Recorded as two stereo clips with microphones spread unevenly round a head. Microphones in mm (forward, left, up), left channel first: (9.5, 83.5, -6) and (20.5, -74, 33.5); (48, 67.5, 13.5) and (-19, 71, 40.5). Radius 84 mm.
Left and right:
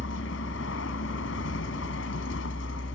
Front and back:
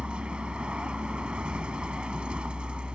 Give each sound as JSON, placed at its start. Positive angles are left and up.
{"t": 0.0, "sound": "a vehicle", "azimuth_deg": 105}